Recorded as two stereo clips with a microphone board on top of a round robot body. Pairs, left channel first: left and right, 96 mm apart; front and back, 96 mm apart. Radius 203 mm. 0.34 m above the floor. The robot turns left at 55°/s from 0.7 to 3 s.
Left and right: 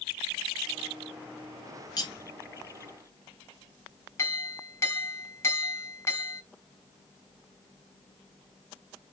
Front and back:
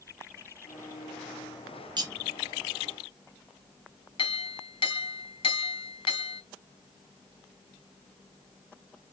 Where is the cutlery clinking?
140° left, 1.5 m; by 2.1 s 130° left, 1.5 m.